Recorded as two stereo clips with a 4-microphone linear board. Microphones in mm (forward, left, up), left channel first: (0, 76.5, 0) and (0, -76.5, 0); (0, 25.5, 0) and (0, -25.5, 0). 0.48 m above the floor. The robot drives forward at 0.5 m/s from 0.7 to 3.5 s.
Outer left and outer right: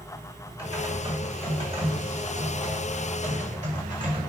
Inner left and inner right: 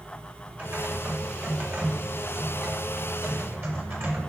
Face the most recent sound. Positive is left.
turn(degrees=-50)  # may be behind; listen again after turning